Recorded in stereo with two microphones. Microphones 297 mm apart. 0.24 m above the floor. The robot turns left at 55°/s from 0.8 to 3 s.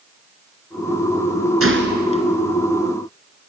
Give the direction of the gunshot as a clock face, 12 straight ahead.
4 o'clock.